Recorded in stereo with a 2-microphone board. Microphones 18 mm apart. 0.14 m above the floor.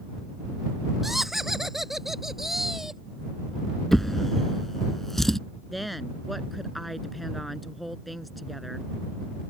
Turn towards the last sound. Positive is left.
turn(degrees=0)  # may be behind; listen again after turning